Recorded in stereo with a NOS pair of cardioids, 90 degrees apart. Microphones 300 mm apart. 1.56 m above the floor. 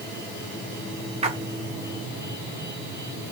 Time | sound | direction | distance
1.2 | a splash | 20° right | 1.6 m